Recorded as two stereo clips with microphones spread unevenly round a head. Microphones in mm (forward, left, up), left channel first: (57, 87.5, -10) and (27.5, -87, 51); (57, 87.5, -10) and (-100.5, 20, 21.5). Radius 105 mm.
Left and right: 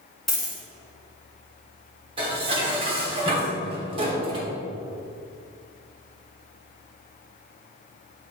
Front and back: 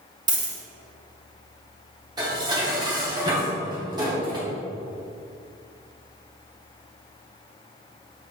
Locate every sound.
0.3 s a dropped coin: 155° right, 1.2 m
2.2 s dishes clattering: 110° right, 0.9 m